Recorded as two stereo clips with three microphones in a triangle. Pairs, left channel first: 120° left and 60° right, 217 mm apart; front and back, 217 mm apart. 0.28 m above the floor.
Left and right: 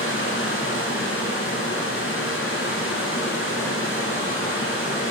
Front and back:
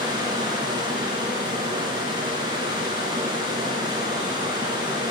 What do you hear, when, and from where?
0.0 s running water: 110° left, 1.8 m